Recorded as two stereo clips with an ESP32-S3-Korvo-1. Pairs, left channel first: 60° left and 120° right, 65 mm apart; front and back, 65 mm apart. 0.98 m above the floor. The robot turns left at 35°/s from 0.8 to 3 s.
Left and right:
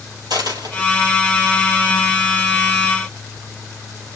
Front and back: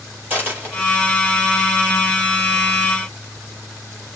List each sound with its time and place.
0.3 s a dropped coin: 115° right, 5 m; by 1.1 s 125° right, 5 m